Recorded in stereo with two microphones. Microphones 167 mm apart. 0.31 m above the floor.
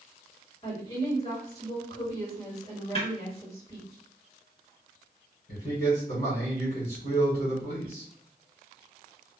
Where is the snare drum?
40° left (ahead or behind), 1.9 m.